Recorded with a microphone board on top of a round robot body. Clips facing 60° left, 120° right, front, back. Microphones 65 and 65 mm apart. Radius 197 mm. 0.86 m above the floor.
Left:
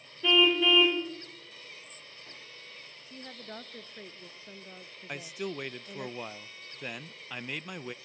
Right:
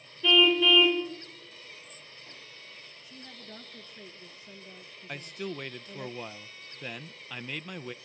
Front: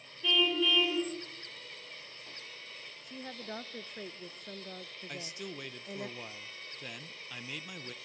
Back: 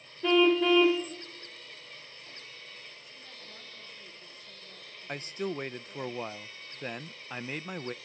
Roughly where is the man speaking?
Behind left.